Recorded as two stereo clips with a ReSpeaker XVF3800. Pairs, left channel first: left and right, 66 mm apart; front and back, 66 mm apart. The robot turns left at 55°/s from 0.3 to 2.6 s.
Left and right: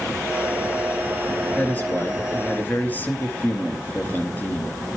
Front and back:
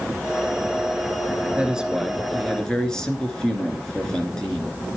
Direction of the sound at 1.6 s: 125° left.